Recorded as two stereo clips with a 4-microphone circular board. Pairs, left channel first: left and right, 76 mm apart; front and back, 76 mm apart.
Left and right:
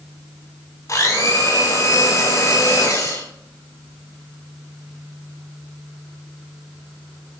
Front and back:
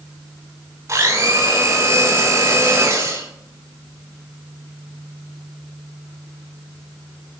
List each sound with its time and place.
0.9 s a blender: 135° left, 5 m